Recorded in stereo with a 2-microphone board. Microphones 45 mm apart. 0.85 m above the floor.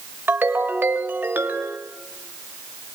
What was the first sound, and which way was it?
A ringtone, 50° right (ahead or behind).